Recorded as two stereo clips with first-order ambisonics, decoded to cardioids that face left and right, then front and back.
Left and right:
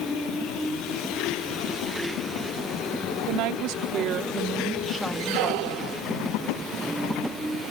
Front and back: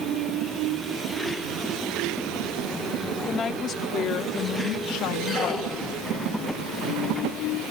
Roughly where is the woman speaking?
Right.